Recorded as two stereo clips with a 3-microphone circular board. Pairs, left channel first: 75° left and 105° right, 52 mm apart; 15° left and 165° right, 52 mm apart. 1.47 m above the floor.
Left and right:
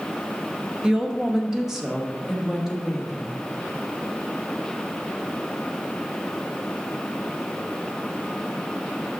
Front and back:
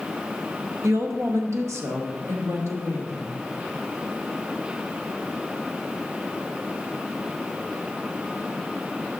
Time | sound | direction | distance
0.8 | a woman speaking | 175° right | 0.7 m